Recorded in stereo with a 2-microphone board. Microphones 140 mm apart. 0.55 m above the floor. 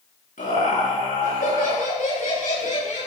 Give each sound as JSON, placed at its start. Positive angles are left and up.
{"t": 0.4, "sound": "laughter", "side_deg": 75, "distance_m": 8.0}